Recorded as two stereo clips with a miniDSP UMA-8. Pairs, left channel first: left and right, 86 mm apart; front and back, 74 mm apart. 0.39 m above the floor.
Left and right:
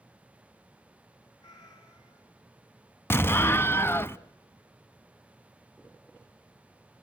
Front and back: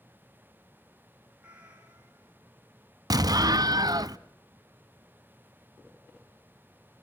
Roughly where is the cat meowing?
Left.